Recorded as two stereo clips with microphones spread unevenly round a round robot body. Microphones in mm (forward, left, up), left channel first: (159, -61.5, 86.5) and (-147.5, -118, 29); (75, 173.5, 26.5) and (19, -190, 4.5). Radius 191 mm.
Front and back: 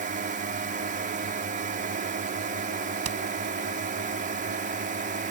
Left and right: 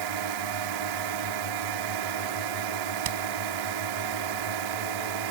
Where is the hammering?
130° right.